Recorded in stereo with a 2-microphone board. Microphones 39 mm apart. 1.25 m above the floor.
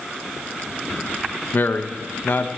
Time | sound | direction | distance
1.5 | a man speaking | 55° left (ahead or behind) | 0.9 m